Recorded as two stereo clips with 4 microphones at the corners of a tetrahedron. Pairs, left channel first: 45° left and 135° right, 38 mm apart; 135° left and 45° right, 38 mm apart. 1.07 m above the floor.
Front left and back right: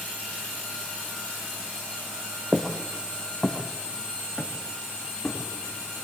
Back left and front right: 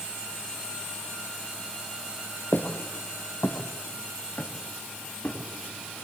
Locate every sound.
2.5 s footsteps: 135° left, 2 m; by 5.4 s 105° left, 4.5 m